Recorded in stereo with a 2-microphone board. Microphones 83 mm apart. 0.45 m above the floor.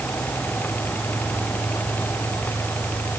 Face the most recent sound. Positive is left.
No sound to turn to.